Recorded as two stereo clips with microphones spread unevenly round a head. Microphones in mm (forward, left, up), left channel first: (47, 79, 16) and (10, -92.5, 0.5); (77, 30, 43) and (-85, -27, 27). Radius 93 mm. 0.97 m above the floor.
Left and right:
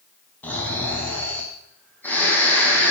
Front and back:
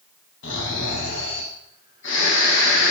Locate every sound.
0.4 s snoring: straight ahead, 3.5 m